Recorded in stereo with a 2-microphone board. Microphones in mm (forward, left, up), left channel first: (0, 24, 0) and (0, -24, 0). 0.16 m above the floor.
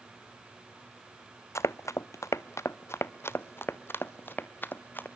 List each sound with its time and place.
1.6 s running footsteps: 70° left (ahead or behind), 0.6 m; by 5.1 s 40° left (ahead or behind), 2 m